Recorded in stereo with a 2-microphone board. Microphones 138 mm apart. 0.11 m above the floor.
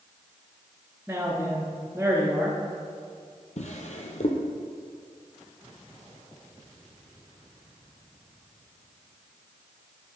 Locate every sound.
1.1 s a man speaking: 15° right (ahead or behind), 1.2 m
3.6 s a drawer: 65° left (ahead or behind), 0.9 m